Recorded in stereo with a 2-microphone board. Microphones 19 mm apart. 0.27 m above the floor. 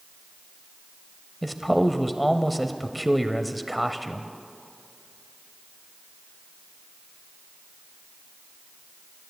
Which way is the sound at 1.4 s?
Centre (ahead or behind).